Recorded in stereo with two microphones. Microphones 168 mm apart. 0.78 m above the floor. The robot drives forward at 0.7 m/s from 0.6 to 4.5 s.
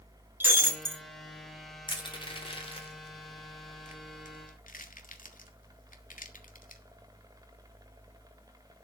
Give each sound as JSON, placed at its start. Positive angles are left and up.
{"t": 0.4, "sound": "breaking glass", "side_deg": -10, "distance_m": 3.5}
{"t": 1.9, "sound": "crushing", "side_deg": 30, "distance_m": 3.0}